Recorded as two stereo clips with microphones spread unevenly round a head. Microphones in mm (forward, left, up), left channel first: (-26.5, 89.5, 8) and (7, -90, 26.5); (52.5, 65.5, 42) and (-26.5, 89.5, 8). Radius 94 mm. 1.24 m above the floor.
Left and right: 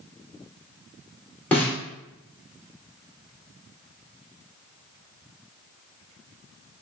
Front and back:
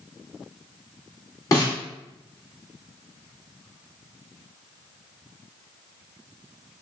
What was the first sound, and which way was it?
A snare drum, 15° left.